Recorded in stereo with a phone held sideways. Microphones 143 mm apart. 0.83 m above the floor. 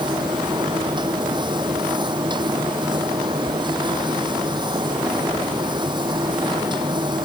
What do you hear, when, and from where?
0.0 s a machine running: 35° right (ahead or behind)